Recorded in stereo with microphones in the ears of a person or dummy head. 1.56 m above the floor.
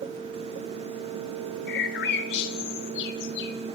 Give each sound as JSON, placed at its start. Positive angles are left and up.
{"t": 1.7, "sound": "a bird", "side_deg": 65, "distance_m": 1.9}